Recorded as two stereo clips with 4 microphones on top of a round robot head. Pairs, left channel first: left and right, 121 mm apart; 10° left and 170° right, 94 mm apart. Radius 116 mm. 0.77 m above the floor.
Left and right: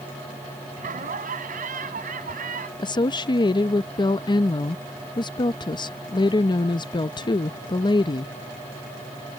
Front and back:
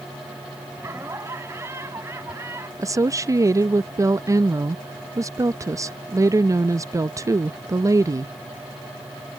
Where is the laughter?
100° right.